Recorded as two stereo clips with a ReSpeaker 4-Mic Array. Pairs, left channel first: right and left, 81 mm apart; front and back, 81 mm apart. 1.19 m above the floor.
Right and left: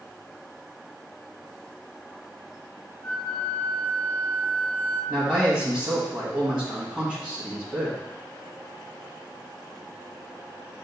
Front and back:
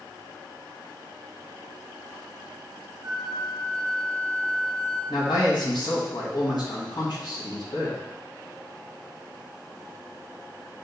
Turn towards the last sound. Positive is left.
turn(degrees=-5)